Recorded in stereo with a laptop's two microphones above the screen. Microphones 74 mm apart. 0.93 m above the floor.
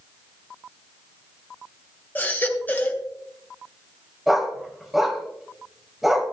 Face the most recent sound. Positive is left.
turn(degrees=-5)  # may be behind; listen again after turning